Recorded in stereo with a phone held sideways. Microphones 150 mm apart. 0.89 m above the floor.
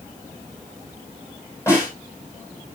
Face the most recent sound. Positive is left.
turn(degrees=20)  # may be behind; listen again after turning